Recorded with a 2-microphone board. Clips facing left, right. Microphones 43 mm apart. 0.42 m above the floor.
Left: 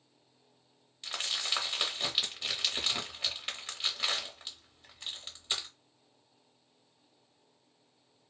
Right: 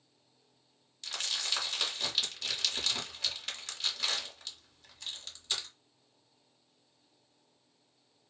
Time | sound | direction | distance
1.0 | crumpling | 20° left (ahead or behind) | 0.7 m